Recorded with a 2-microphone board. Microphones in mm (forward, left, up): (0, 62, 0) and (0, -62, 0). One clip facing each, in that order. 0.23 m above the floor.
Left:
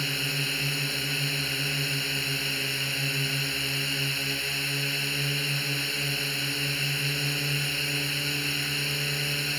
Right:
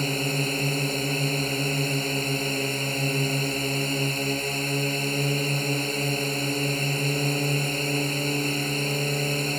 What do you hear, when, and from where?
0.0 s a drone: 40° right (ahead or behind)